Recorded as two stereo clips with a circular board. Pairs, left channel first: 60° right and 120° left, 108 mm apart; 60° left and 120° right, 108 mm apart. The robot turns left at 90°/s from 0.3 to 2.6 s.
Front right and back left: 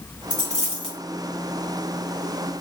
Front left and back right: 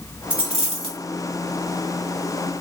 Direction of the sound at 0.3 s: 100° right.